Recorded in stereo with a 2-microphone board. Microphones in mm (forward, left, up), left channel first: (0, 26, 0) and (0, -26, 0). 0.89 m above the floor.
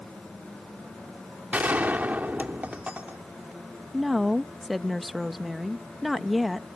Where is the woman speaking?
Centre (ahead or behind).